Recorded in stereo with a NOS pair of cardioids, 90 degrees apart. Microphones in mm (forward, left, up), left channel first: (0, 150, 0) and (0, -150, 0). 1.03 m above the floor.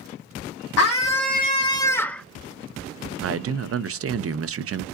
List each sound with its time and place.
0.8 s a scream: 55° left, 0.6 m; by 2.2 s straight ahead, 0.9 m
3.2 s a man speaking: 50° right, 0.6 m